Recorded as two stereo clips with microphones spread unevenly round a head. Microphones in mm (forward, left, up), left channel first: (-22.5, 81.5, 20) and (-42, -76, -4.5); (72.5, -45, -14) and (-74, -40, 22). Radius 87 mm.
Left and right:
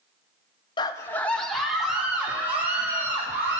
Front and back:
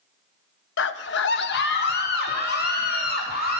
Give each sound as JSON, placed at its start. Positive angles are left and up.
{"t": 0.8, "sound": "a scream", "azimuth_deg": 20, "distance_m": 0.6}